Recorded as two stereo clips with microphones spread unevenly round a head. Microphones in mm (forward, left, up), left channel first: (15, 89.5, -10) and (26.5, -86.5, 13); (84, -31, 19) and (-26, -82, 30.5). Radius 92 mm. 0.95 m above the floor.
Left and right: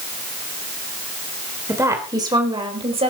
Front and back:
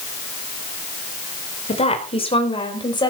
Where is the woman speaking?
10° right, 4 m; by 3.1 s 30° right, 5 m.